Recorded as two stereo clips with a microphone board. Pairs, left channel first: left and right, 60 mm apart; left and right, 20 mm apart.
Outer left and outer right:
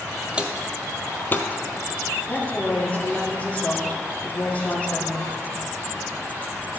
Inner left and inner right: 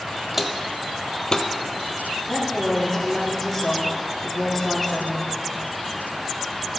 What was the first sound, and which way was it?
Footsteps, 20° right (ahead or behind).